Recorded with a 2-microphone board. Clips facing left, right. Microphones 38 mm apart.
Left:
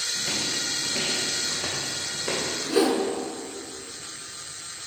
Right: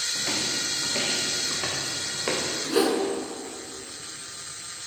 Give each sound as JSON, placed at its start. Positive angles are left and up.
{"t": 0.1, "sound": "footsteps", "side_deg": -60, "distance_m": 2.0}
{"t": 2.7, "sound": "a whoosh", "side_deg": -20, "distance_m": 1.4}